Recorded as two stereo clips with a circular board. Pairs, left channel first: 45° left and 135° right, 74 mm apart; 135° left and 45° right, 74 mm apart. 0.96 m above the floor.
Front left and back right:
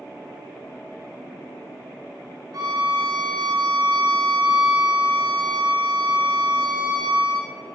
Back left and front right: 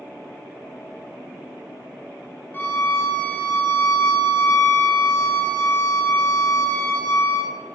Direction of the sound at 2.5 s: 160° right.